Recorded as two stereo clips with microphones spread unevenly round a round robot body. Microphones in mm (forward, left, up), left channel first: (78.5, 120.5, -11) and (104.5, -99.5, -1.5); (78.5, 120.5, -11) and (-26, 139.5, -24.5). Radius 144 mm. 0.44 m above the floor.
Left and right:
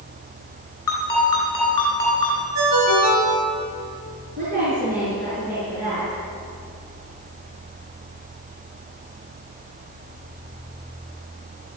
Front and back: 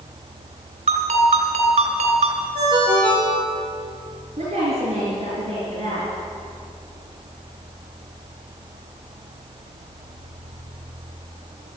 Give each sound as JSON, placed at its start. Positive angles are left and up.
{"t": 0.9, "sound": "a ringtone", "azimuth_deg": 175, "distance_m": 3.0}
{"t": 2.5, "sound": "a ringtone", "azimuth_deg": -120, "distance_m": 3.5}
{"t": 4.4, "sound": "a woman speaking", "azimuth_deg": -145, "distance_m": 6.0}